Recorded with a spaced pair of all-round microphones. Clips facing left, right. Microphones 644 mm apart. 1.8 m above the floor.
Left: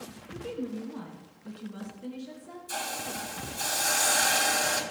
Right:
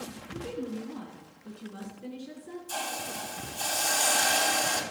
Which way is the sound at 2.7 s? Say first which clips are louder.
Even; 45° left (ahead or behind).